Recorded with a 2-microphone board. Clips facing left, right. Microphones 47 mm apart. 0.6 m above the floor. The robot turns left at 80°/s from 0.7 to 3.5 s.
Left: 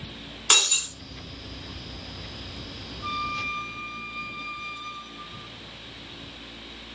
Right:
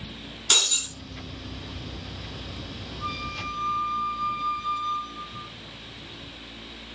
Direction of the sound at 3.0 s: 55° right.